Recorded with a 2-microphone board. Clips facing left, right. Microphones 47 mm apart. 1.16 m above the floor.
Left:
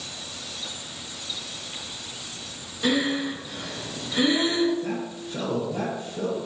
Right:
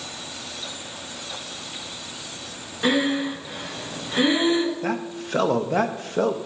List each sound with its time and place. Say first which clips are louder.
2.8 s breathing: right 2 dB; 20° right (ahead or behind), 2.0 m
4.8 s a man speaking: right 3 dB; 80° right, 1.2 m